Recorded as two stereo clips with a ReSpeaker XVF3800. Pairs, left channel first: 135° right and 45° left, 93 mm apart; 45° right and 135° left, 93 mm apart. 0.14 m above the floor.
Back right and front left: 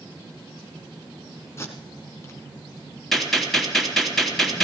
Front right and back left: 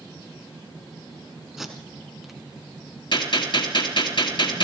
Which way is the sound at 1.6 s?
140° right.